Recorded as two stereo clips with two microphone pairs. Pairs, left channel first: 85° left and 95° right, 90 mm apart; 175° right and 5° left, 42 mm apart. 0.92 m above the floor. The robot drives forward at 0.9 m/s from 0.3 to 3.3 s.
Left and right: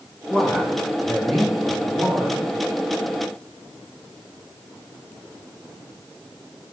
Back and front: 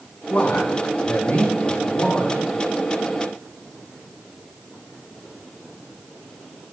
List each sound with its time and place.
0.3 s a man speaking: 155° left, 1.2 m; by 2.4 s 175° left, 3 m